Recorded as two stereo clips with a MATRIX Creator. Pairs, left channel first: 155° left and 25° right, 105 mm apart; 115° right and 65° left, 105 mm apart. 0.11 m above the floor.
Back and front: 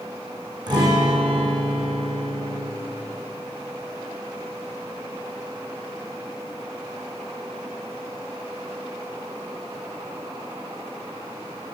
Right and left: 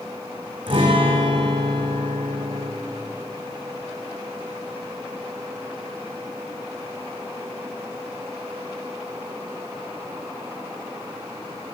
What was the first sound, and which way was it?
A guitar, 25° left.